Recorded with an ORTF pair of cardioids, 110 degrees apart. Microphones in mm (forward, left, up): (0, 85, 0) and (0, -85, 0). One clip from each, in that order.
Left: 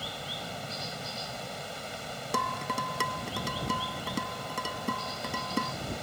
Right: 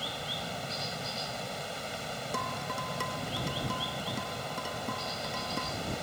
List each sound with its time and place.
0.0 s running water: 5° right
2.3 s dishes clattering: 35° left